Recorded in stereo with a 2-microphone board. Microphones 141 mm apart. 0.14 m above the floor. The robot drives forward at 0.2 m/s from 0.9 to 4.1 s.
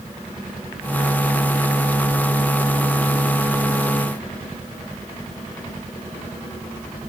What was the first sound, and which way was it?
Only background noise.